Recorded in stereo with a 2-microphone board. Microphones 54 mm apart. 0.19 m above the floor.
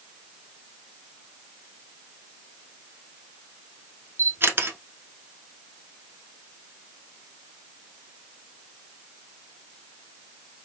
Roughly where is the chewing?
No chewing in this recording.